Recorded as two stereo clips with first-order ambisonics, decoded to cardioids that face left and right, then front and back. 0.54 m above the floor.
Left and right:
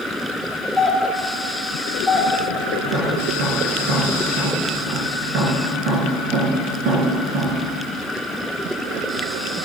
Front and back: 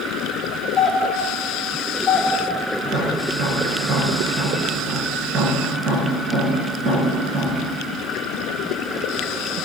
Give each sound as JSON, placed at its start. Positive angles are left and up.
{"t": 0.8, "sound": "a doorbell", "azimuth_deg": -5, "distance_m": 1.3}
{"t": 2.8, "sound": "tapping", "azimuth_deg": -130, "distance_m": 3.0}